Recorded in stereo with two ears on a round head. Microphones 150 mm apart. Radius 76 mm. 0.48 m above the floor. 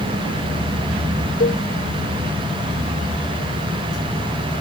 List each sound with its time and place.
1.4 s a cowbell: 55° left (ahead or behind)